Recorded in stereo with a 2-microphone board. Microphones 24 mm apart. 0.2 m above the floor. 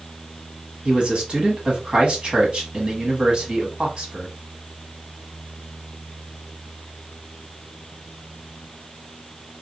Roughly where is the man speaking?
Right.